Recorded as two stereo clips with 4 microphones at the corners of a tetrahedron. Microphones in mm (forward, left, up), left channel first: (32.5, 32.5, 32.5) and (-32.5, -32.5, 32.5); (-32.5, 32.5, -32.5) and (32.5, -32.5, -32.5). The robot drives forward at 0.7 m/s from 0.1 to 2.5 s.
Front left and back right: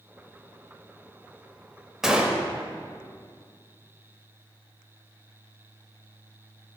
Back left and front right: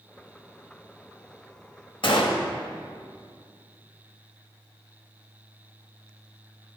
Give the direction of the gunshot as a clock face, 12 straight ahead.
7 o'clock.